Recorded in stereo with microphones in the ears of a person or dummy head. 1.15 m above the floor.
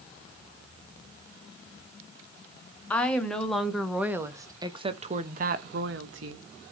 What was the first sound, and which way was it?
A woman speaking, 10° left (ahead or behind).